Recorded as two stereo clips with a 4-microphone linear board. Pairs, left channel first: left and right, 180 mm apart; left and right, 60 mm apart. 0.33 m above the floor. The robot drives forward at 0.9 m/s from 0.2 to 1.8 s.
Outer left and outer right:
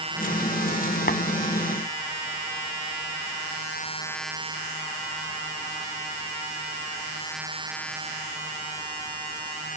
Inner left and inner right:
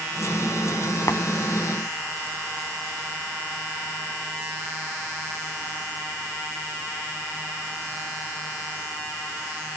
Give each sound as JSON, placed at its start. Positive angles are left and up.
{"t": 1.1, "sound": "tapping", "side_deg": 65, "distance_m": 0.6}